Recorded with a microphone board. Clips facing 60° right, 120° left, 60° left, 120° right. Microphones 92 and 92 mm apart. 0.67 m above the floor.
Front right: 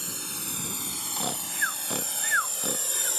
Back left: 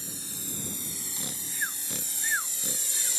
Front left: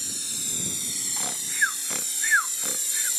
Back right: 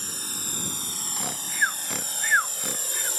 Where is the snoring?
35° right.